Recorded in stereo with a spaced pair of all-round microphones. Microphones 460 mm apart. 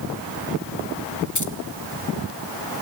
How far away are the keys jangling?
About 0.9 m.